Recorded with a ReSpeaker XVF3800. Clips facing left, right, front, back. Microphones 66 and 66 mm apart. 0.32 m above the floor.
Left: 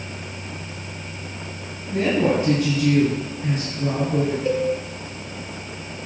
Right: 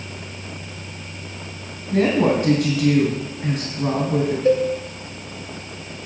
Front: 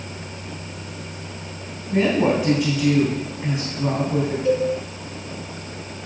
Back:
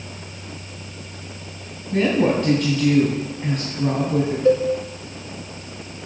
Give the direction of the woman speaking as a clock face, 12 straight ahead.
3 o'clock.